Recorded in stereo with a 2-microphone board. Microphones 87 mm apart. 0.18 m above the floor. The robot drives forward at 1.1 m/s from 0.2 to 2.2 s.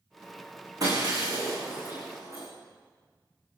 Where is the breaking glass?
45° right (ahead or behind), 9.5 m; by 2.5 s 40° right (ahead or behind), 11 m.